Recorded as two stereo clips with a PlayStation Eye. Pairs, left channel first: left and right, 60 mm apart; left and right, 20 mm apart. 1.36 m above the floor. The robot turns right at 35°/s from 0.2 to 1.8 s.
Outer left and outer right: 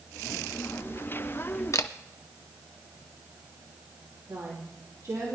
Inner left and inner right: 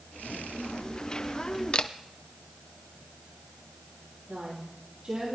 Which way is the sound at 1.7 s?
60° left (ahead or behind).